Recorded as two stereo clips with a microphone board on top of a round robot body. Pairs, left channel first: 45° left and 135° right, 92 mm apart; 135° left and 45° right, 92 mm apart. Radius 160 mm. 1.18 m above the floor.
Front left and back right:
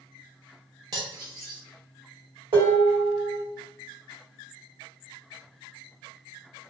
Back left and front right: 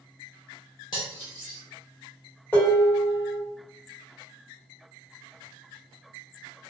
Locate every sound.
0.9 s cutlery clinking: 175° left, 0.7 m
2.5 s dishes clattering: 155° right, 1.2 m